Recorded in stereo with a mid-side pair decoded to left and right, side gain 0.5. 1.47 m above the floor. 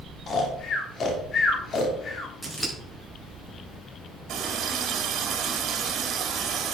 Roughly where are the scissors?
Ahead.